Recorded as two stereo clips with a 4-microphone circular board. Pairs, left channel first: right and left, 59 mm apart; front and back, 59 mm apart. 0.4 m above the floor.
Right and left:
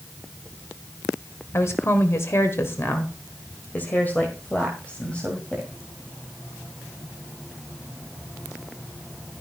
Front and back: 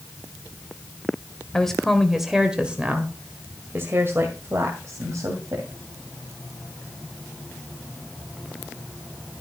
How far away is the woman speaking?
About 1.6 m.